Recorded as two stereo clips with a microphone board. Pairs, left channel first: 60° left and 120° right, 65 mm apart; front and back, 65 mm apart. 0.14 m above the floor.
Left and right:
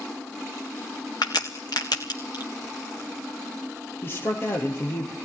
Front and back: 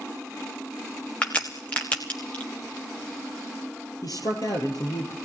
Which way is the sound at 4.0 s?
10° left.